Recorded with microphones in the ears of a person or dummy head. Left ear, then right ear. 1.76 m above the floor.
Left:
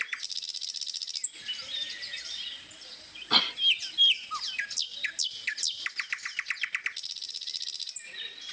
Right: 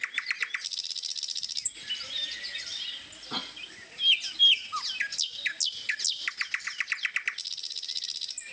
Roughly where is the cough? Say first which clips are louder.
Left 11 dB; left.